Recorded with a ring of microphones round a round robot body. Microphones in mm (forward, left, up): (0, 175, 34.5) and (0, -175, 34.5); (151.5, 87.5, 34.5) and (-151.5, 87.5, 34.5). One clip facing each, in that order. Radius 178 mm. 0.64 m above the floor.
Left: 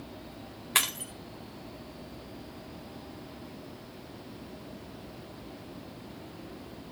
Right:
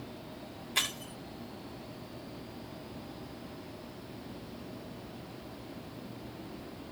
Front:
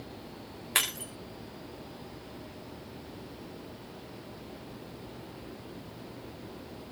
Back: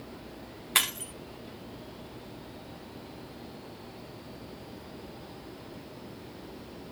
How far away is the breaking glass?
About 5.5 m.